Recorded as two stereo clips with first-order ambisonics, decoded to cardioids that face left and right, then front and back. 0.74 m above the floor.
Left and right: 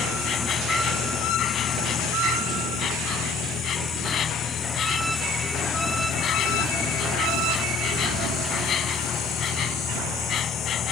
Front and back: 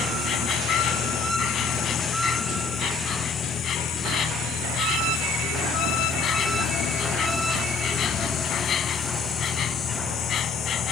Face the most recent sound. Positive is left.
turn(degrees=45)